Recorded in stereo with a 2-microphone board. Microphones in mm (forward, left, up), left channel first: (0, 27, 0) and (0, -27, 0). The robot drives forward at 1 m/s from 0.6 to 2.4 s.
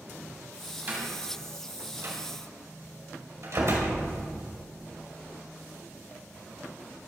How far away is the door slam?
About 3 m.